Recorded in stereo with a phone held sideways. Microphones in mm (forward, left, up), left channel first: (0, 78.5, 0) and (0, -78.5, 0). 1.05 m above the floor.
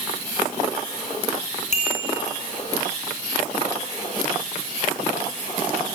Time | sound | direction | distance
1.7 | a bicycle bell | 50° left (ahead or behind) | 8.5 m